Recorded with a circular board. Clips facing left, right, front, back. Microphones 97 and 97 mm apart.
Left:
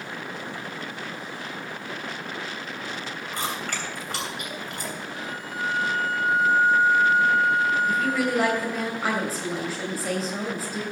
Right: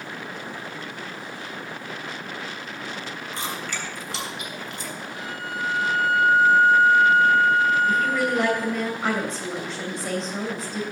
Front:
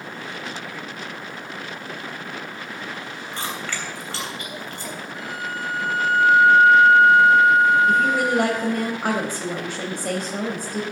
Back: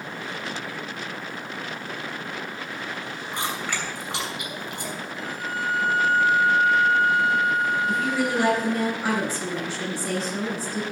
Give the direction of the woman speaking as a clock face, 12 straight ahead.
12 o'clock.